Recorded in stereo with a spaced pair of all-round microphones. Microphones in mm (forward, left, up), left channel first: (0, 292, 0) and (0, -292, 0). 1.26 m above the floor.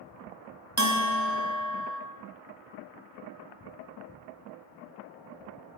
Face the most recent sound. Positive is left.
turn(degrees=-30)  # may be behind; listen again after turning